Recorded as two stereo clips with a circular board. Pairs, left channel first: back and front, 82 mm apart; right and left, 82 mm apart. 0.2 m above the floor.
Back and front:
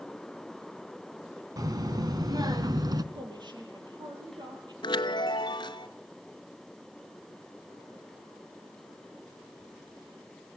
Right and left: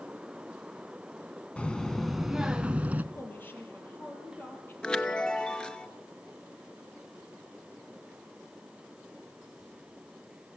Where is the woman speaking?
25° right, 5.5 m.